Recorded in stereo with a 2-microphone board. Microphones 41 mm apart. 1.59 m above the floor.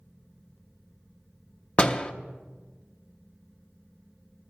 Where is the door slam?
30° left (ahead or behind), 0.7 m.